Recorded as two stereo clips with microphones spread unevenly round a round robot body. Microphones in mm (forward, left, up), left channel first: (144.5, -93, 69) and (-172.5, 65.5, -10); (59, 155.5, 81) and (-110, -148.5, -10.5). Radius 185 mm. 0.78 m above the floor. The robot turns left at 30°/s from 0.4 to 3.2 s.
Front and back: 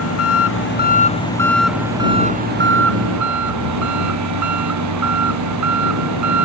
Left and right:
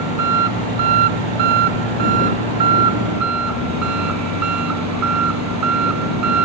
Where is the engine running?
80° right; by 6.5 s 165° right.